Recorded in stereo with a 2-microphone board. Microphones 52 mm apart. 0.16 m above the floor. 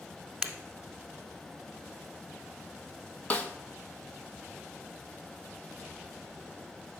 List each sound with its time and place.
0.4 s breaking glass: 15° right (ahead or behind), 0.9 m
3.3 s a snare drum: 25° left (ahead or behind), 0.9 m